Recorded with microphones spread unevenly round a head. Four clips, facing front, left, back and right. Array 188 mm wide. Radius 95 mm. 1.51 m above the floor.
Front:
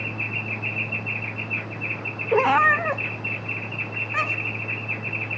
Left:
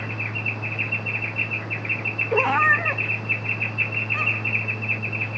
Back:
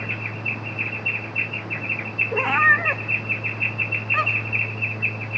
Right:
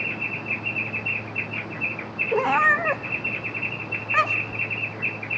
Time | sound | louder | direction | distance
2.3 | a cat meowing | even, front 2 dB | 5° left | 0.9 m